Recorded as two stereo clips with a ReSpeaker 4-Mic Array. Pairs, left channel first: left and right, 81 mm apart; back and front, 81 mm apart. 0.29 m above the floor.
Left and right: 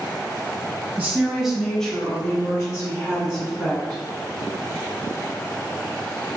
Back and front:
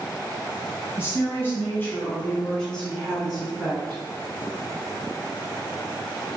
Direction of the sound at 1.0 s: 145° right.